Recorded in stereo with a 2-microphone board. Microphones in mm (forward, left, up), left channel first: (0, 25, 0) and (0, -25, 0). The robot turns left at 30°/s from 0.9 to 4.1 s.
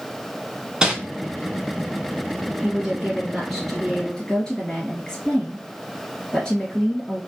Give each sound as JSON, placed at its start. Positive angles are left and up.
{"t": 0.8, "sound": "crumpling", "side_deg": -15, "distance_m": 0.8}
{"t": 2.6, "sound": "a woman speaking", "azimuth_deg": -155, "distance_m": 2.0}